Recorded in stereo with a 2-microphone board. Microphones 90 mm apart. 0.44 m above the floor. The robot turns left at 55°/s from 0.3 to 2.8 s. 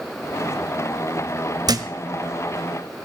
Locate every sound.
1.7 s a thud: 50° right (ahead or behind), 0.9 m; by 1.9 s 40° right (ahead or behind), 0.9 m